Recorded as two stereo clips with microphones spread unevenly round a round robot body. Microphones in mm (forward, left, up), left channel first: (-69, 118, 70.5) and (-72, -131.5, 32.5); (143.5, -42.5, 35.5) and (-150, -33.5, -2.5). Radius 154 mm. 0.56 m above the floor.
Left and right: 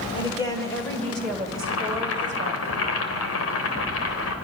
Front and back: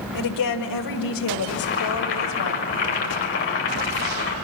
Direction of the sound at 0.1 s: 15° left.